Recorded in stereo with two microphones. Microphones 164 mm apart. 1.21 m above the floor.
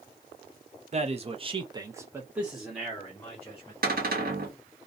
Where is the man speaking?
40° right (ahead or behind), 0.6 m; by 3.7 s 10° left (ahead or behind), 1.2 m.